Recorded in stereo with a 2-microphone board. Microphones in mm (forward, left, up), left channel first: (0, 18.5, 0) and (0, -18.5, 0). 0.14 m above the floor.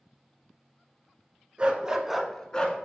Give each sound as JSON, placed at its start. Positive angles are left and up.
{"t": 1.6, "sound": "a dog barking", "side_deg": -30, "distance_m": 0.7}